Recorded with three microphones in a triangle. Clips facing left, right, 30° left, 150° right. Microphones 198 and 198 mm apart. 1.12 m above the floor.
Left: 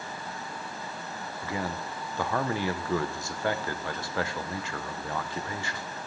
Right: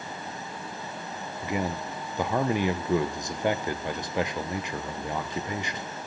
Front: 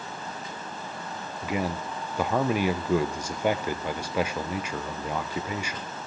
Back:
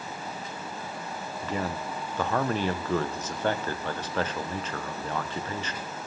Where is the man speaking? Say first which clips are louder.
Right 4 dB, front 3 dB; 35° right, 0.7 m.